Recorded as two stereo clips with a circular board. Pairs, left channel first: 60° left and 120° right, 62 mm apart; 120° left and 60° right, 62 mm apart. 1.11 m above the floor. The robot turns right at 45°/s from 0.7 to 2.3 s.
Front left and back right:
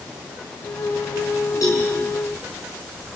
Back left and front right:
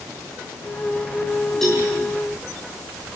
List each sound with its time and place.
1.6 s a cowbell: 35° left, 8.5 m; by 1.8 s 45° left, 8.5 m